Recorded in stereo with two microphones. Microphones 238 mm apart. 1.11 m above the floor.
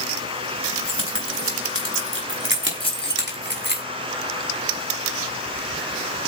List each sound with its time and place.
0.7 s keys jangling: 70° right (ahead or behind), 7 m; by 3.8 s 45° right (ahead or behind), 6 m
2.8 s keys jangling: 25° left (ahead or behind), 3.5 m